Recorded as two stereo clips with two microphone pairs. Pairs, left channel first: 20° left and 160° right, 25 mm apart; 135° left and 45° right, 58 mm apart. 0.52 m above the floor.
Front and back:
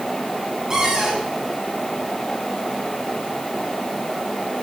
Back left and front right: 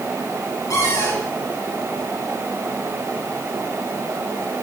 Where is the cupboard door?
140° left, 6 m.